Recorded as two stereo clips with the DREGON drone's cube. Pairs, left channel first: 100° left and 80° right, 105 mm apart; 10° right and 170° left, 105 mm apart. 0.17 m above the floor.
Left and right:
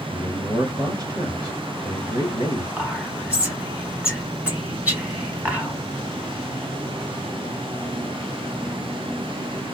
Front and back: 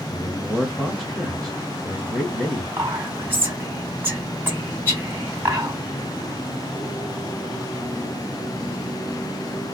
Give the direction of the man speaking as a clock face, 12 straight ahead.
3 o'clock.